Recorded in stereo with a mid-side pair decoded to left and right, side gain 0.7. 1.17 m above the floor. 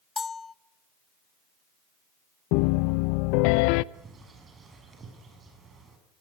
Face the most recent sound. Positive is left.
turn(degrees=-25)